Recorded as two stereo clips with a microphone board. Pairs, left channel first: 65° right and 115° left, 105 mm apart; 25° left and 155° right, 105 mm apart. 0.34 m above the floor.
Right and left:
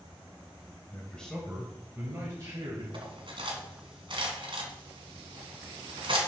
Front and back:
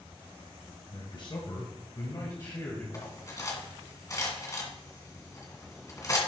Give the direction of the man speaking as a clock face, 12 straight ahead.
12 o'clock.